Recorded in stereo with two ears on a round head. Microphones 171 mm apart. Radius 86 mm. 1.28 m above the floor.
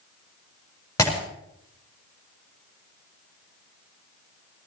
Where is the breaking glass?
15° left (ahead or behind), 6 m.